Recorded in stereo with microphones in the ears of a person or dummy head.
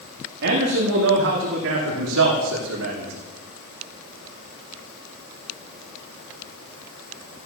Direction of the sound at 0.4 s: 55° right (ahead or behind).